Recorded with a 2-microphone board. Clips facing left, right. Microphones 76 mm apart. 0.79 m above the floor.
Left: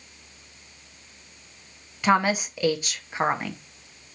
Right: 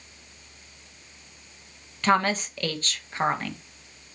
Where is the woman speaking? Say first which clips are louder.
Left 1 dB; 10° left (ahead or behind), 0.8 m.